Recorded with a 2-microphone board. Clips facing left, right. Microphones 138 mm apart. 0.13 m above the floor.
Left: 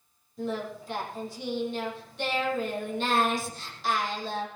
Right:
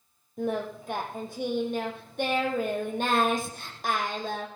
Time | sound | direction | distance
0.4 | singing | 55° right (ahead or behind) | 4.5 m